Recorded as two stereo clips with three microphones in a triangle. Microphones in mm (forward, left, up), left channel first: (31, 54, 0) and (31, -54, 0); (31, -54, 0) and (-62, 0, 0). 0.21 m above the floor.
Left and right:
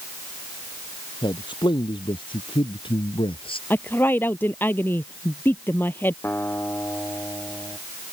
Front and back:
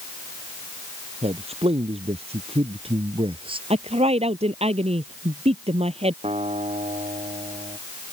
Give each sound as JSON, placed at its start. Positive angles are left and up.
{"t": 1.2, "sound": "a man speaking", "azimuth_deg": 135}
{"t": 3.7, "sound": "a woman speaking", "azimuth_deg": 160}
{"t": 6.2, "sound": "a guitar", "azimuth_deg": 160}